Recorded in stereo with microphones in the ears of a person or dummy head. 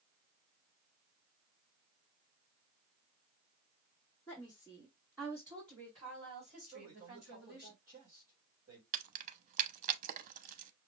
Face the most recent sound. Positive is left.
turn(degrees=-45)  # may be behind; listen again after turning